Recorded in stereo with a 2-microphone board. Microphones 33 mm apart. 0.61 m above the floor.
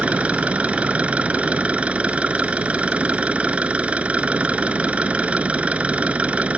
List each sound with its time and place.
0.0 s an engine running: 45° right (ahead or behind)